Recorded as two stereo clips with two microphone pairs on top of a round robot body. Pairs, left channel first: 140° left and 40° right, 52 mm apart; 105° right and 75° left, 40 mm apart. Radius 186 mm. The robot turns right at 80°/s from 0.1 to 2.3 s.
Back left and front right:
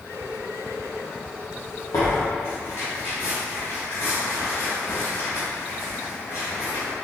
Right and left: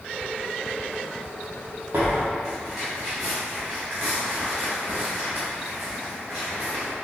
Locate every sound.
1.9 s tearing paper: 135° left, 0.5 m; by 6.9 s 165° left, 0.5 m